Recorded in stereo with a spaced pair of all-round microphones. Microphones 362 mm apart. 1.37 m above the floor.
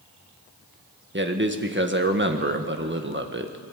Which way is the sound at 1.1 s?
30° right (ahead or behind).